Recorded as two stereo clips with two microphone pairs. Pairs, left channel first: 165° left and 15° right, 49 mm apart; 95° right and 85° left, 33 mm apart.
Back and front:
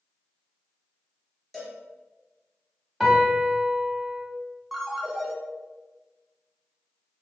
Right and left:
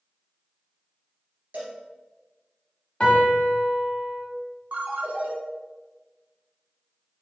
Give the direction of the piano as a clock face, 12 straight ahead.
3 o'clock.